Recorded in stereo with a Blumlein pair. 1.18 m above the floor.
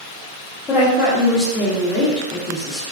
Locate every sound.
0.7 s a woman speaking: 20° left, 1.1 m